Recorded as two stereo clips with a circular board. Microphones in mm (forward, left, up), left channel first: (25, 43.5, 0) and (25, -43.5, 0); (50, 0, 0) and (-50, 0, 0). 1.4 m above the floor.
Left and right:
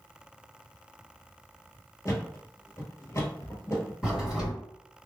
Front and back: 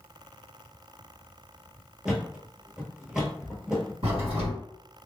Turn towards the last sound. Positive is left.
turn(degrees=-175)